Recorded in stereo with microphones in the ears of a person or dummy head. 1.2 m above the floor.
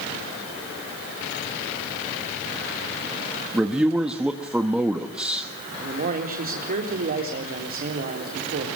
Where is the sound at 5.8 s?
45° right (ahead or behind), 3 m.